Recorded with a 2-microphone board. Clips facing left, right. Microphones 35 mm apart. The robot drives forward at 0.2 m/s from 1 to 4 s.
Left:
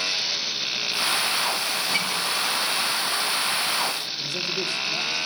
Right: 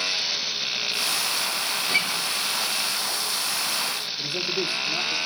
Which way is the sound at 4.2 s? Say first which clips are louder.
Right 3 dB; 20° right (ahead or behind).